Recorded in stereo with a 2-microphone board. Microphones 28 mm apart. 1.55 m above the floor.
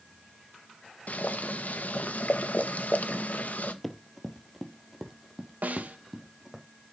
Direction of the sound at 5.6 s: 70° right (ahead or behind).